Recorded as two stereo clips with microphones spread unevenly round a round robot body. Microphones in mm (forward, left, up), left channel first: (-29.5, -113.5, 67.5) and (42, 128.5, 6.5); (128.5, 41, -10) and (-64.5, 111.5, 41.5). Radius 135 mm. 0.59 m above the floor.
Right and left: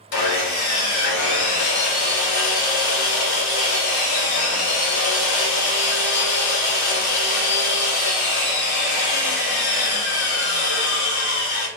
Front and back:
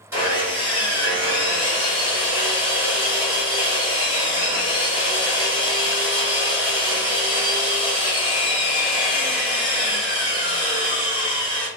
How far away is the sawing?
About 0.8 m.